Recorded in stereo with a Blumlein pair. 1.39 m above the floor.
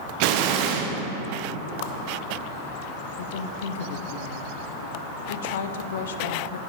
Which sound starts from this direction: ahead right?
An explosion, at 0.2 s.